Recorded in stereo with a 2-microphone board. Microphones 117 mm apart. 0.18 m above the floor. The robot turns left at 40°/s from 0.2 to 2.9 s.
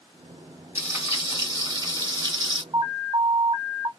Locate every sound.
0.8 s frying: 30° right, 1.9 m; by 2.6 s 105° right, 1.9 m
2.7 s an alarm: 40° right (ahead or behind), 1.2 m